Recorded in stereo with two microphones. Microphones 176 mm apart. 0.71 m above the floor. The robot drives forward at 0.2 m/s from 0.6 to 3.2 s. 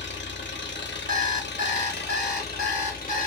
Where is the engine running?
80° left, 0.7 m; by 3.3 s 50° left (ahead or behind), 0.9 m.